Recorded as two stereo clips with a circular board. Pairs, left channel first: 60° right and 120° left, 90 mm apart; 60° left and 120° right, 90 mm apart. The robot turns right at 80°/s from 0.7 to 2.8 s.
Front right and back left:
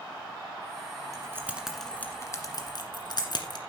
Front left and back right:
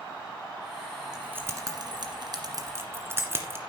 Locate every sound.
1.1 s keys jangling: 160° left, 1.6 m; by 3.6 s 65° right, 1.6 m